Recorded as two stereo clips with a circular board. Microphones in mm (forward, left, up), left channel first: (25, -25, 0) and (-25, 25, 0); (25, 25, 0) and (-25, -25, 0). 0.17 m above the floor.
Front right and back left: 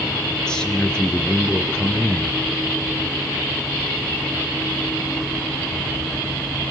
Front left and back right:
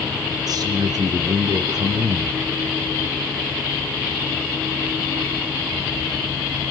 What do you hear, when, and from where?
0.5 s a man speaking: 125° right, 3.5 m